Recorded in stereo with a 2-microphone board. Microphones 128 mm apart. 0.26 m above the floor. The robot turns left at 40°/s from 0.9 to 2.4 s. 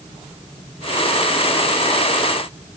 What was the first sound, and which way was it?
Only background noise.